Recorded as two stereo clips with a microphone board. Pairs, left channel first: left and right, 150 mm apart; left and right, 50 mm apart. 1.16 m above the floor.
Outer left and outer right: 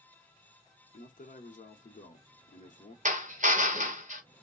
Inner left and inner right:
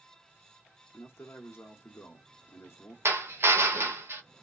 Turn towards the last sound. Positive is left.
turn(degrees=-55)  # may be behind; listen again after turning